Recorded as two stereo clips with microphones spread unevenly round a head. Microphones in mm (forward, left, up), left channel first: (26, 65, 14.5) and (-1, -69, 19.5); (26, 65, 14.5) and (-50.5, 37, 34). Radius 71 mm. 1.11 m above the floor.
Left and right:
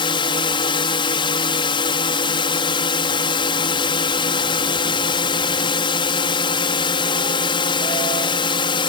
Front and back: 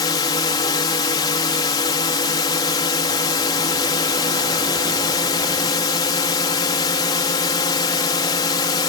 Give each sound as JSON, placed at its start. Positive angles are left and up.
{"t": 0.0, "sound": "a drone", "azimuth_deg": 30}